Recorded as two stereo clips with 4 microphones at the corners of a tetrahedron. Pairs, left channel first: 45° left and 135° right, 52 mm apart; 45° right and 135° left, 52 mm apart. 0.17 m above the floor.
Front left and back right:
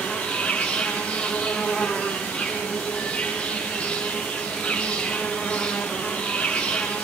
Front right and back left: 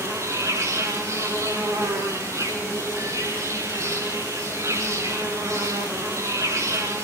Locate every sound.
0.0 s an insect: 115° left, 8.5 m